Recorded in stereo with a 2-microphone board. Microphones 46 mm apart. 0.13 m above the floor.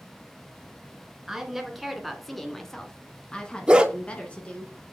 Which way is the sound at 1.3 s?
5° right (ahead or behind).